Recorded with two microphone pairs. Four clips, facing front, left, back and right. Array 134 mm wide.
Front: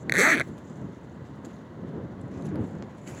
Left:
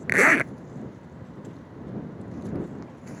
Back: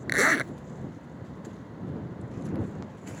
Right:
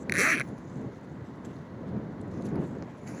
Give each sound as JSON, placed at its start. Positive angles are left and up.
{"t": 0.1, "sound": "a zipper", "azimuth_deg": 85}